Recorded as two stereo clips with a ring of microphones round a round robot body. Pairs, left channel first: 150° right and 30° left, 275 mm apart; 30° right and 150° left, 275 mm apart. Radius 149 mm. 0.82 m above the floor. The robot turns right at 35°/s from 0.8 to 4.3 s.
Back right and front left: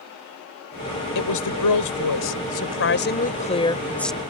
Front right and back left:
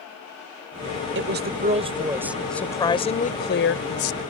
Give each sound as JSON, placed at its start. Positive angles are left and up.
{"t": 1.1, "sound": "a woman speaking", "azimuth_deg": -165}